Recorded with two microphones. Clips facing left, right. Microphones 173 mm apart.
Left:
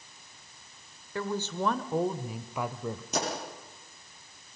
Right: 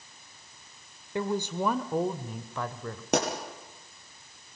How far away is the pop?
About 5.5 m.